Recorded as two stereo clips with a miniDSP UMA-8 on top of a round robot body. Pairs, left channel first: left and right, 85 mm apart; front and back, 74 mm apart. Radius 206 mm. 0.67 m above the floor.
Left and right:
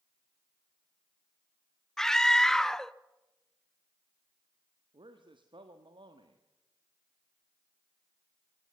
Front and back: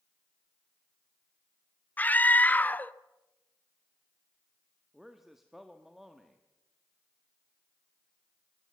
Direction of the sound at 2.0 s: 15° left.